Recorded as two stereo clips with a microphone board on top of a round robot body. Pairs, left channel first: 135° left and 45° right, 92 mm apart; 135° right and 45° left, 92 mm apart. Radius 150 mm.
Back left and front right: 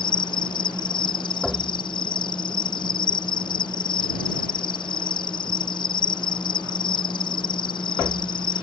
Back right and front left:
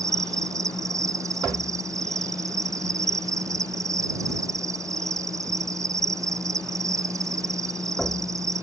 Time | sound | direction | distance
0.0 | an insect | 100° left | ?